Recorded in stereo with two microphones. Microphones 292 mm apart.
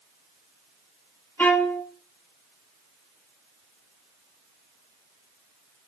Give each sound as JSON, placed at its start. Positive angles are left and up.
{"t": 1.4, "sound": "a violin", "side_deg": 5, "distance_m": 2.5}